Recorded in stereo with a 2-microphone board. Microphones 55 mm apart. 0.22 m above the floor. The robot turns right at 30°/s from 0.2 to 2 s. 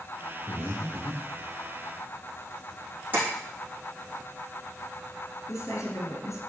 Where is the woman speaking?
65° left (ahead or behind), 3.5 m.